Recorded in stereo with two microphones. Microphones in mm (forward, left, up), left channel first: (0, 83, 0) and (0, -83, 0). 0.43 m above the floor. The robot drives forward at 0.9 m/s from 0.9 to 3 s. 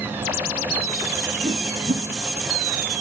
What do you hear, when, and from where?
1.4 s a whoosh: 40° right (ahead or behind), 3 m; by 2.0 s 45° right (ahead or behind), 2.5 m